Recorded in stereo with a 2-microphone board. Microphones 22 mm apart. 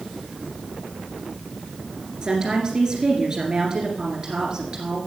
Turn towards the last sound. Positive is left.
turn(degrees=-30)  # may be behind; listen again after turning